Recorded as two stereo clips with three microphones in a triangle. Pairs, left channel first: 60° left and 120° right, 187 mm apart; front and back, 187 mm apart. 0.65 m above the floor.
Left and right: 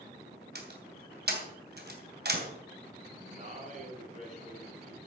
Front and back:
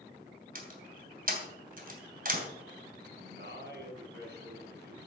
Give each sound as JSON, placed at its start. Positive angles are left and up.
{"t": 0.6, "sound": "a door slam", "azimuth_deg": -145, "distance_m": 2.5}
{"t": 3.1, "sound": "a man speaking", "azimuth_deg": -165, "distance_m": 5.0}